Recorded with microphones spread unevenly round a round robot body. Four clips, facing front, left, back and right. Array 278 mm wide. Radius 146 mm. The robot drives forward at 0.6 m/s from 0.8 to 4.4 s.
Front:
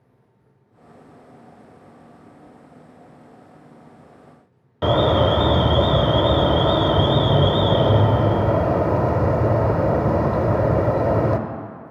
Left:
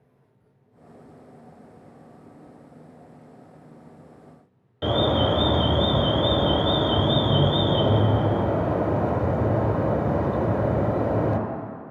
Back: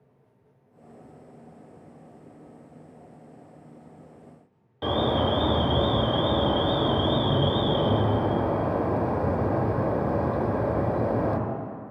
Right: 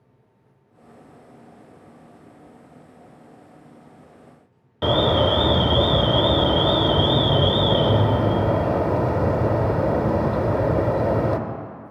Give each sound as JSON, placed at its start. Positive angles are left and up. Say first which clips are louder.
{"t": 4.8, "sound": "an alarm", "louder": "right 3 dB, front 7 dB", "azimuth_deg": -30, "distance_m": 0.8}